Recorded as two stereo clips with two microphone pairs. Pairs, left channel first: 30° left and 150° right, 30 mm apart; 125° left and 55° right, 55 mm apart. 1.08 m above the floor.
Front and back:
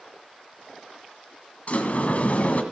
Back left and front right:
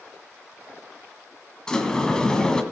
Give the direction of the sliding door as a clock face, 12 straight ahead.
10 o'clock.